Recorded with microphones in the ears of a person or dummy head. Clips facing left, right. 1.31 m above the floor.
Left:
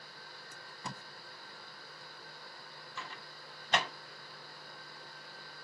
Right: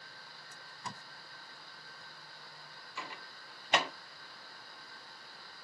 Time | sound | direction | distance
0.5 | tape being pulled | 55° left (ahead or behind) | 0.7 m
3.0 | a microwave | 10° right (ahead or behind) | 0.6 m